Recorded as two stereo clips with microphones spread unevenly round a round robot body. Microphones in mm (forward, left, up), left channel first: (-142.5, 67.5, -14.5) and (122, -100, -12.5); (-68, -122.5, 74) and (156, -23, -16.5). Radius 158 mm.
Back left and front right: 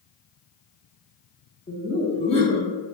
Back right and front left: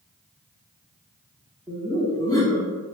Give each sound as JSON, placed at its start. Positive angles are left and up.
{"t": 1.7, "sound": "laughter", "azimuth_deg": 95, "distance_m": 0.8}